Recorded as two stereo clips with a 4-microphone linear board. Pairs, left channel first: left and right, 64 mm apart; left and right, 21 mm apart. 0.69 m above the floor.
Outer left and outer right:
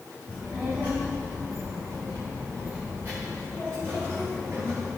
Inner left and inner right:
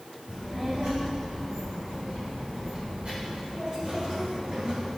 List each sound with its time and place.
0.3 s a child speaking: 25° right (ahead or behind), 3 m; by 4.9 s 35° right (ahead or behind), 6 m